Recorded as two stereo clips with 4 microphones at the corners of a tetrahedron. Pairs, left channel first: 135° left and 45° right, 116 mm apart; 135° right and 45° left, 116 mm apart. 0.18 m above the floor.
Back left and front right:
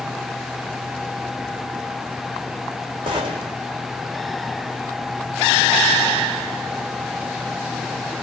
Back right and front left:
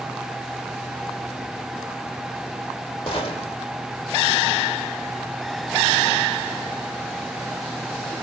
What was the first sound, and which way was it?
A gunshot, 90° right.